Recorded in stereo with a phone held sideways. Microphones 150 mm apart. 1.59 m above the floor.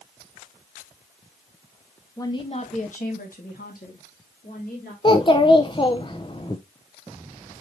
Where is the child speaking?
35° left (ahead or behind), 0.6 m.